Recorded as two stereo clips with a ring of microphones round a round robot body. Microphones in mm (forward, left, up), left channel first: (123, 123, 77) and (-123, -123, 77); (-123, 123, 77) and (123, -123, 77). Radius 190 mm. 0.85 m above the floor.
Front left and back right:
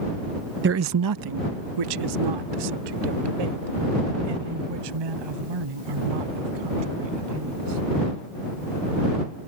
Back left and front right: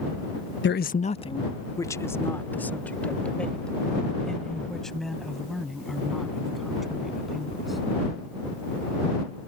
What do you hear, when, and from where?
0.6 s a man speaking: straight behind; by 7.8 s 135° right